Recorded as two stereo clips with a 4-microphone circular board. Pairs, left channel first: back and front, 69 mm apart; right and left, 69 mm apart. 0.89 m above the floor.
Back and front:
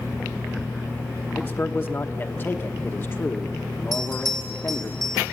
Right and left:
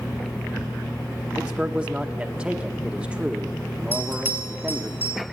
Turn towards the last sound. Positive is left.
turn(degrees=30)